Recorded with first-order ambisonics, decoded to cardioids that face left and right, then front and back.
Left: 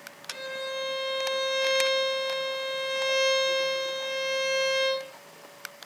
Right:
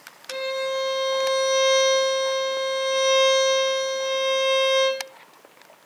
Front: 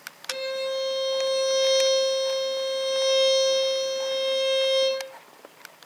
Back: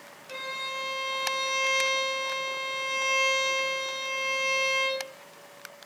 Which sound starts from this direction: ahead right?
A violin, at 0.3 s.